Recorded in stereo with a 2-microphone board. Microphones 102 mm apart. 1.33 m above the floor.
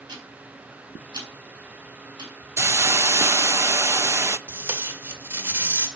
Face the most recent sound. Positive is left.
turn(degrees=-25)  # may be behind; listen again after turning